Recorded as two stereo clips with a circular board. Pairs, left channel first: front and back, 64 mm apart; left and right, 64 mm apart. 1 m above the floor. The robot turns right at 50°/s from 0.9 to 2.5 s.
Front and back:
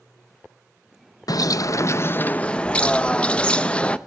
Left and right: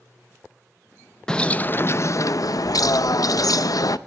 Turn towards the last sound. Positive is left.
turn(degrees=75)